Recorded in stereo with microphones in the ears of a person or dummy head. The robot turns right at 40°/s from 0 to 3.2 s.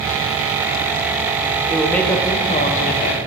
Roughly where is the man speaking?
Ahead.